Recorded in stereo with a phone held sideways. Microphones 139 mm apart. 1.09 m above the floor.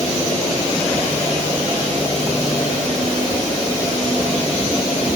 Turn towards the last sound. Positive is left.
No sound to turn to.